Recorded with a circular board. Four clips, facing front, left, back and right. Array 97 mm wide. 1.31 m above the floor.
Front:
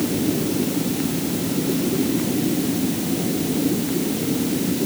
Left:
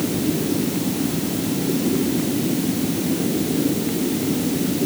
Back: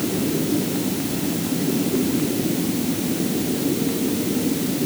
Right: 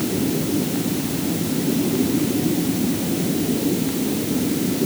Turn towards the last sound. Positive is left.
No sound to turn to.